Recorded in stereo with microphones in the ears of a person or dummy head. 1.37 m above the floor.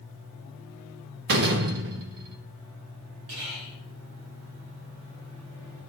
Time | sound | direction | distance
1.3 | a door slam | 55° right (ahead or behind) | 0.8 m
3.3 | whispering | 85° right | 3 m